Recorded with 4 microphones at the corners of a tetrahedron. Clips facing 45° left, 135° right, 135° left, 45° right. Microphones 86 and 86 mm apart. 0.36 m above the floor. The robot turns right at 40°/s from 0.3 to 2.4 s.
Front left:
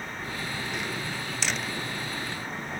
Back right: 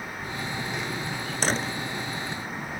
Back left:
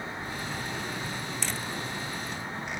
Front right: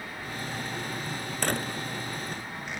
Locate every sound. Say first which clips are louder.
1.4 s a door slam: back right 6 dB, front right 5 dB; 85° right; by 1.7 s 70° right